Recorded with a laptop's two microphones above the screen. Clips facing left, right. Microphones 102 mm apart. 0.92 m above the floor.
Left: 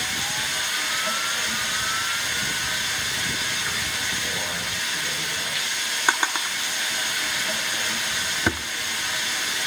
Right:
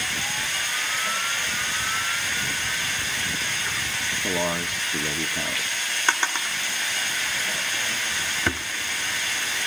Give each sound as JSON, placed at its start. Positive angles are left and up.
{"t": 0.0, "sound": "running water", "side_deg": 10, "distance_m": 9.0}
{"t": 4.2, "sound": "a man speaking", "side_deg": -70, "distance_m": 1.7}
{"t": 6.1, "sound": "a drawer", "side_deg": 10, "distance_m": 1.1}